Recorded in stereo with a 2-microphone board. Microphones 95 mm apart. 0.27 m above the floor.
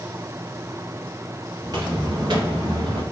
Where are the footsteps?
40° right (ahead or behind), 2.5 m; by 3.0 s 65° right (ahead or behind), 2.5 m.